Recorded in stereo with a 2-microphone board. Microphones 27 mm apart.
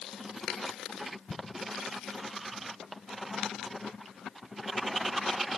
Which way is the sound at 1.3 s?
15° left (ahead or behind).